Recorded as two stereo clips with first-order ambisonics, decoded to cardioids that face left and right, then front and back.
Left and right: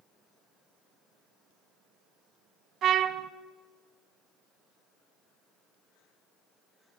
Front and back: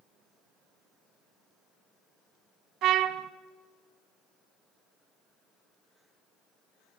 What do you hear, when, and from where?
2.8 s a trumpet: 140° right, 1.0 m